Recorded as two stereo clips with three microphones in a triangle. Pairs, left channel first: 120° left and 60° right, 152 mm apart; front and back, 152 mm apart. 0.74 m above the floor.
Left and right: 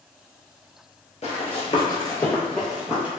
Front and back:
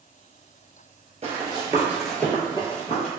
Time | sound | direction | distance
1.2 | running footsteps | 145° left | 1.1 m